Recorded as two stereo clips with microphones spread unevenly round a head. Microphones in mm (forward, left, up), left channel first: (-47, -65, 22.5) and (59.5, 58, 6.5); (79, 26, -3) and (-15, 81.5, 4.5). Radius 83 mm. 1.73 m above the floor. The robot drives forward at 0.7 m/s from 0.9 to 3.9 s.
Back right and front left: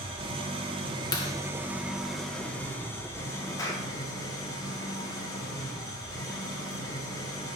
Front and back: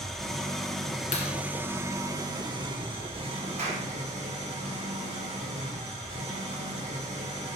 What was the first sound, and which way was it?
An engine running, 60° left.